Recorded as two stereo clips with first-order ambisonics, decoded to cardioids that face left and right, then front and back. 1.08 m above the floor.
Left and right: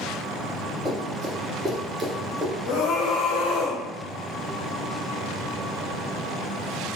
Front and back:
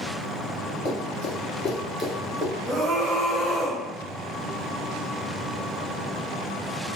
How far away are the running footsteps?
About 2 m.